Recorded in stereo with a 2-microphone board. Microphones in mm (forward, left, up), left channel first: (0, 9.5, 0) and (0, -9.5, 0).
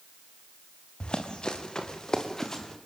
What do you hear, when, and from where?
1.0 s running footsteps: 55° left (ahead or behind), 4.5 m; by 2.8 s 25° left (ahead or behind), 5 m